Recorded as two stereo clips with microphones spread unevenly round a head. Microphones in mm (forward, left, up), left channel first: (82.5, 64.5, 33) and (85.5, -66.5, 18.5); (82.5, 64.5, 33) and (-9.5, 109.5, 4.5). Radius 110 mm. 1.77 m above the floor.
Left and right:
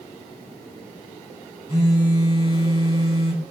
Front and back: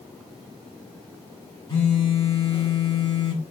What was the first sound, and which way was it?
A phone buzzing, 30° right.